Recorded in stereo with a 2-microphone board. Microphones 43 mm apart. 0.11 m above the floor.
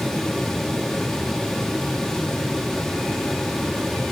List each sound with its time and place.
Only background noise.